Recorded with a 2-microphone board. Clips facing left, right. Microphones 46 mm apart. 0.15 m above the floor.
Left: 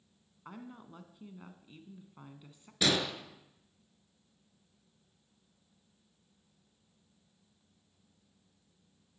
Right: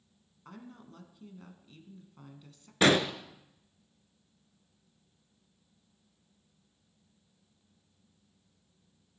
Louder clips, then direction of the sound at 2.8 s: Right 6 dB; 40° right (ahead or behind).